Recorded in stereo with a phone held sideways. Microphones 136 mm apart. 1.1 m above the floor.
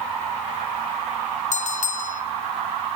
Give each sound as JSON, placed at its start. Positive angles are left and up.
{"t": 1.5, "sound": "a bell", "side_deg": 60, "distance_m": 1.0}